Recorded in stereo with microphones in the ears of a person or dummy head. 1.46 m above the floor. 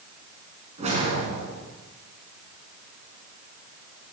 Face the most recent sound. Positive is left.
turn(degrees=-25)  # may be behind; listen again after turning